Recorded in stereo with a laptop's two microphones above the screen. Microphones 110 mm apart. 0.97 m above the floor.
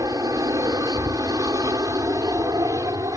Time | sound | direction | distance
0.0 | an aircraft | 30° right (ahead or behind) | ?